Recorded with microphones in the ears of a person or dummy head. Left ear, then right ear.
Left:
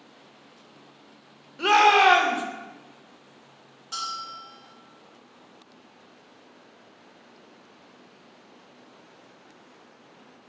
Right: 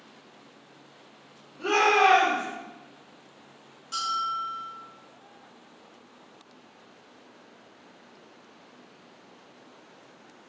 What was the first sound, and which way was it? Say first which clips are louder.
A shout: left 4 dB; 65° left (ahead or behind).